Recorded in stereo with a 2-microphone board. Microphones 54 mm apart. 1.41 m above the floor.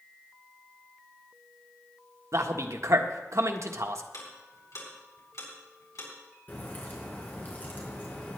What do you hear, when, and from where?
2.3 s a man speaking: 70° right (ahead or behind), 1.4 m
4.1 s ticking: 80° left, 4.5 m
6.5 s a crack: 35° left (ahead or behind), 4.5 m